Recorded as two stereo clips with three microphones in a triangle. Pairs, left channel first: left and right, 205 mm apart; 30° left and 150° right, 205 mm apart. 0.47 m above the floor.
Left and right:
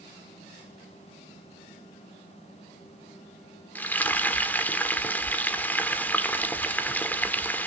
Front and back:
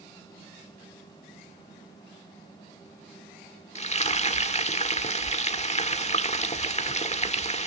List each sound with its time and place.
3.8 s frying: 15° left, 1.4 m